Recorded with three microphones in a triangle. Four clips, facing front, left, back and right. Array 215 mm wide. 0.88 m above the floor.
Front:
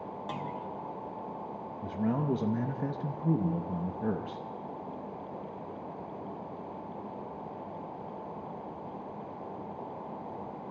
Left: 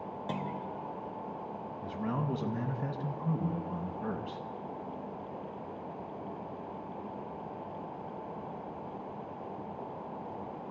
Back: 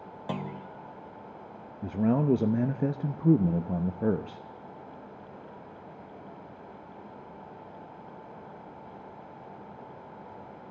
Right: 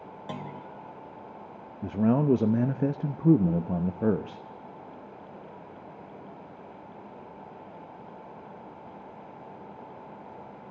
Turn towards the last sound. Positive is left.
turn(degrees=-120)